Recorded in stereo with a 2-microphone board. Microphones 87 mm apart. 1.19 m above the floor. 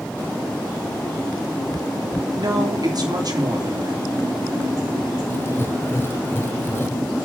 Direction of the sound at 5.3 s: 30° left (ahead or behind).